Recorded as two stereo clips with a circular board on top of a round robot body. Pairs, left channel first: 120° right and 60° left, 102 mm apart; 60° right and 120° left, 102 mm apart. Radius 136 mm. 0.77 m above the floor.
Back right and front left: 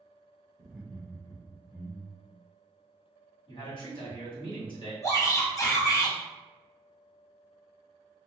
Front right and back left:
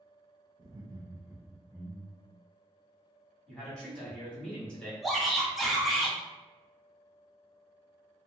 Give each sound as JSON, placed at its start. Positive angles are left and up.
{"t": 0.6, "sound": "laughter", "azimuth_deg": 120, "distance_m": 0.6}
{"t": 3.5, "sound": "a man speaking", "azimuth_deg": -140, "distance_m": 1.7}
{"t": 5.0, "sound": "a shout", "azimuth_deg": -155, "distance_m": 1.2}